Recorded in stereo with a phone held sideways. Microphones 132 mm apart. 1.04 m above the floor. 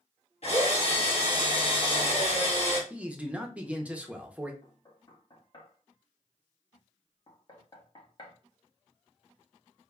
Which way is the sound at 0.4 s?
50° left (ahead or behind).